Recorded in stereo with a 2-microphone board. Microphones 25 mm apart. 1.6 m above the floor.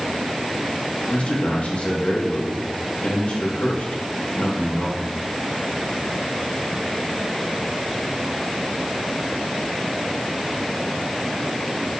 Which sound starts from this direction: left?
A man speaking, at 1.1 s.